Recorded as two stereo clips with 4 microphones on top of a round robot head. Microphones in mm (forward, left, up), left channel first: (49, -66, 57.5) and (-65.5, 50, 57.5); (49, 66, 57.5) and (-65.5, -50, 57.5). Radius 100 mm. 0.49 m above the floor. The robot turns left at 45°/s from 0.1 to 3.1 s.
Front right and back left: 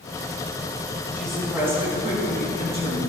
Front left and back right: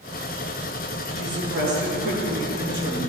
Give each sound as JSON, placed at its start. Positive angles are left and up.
{"t": 1.1, "sound": "a woman speaking", "azimuth_deg": -125, "distance_m": 4.0}